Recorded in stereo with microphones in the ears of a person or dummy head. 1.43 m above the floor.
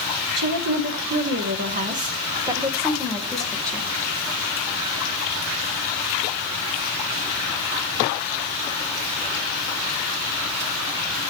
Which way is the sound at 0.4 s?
75° right (ahead or behind).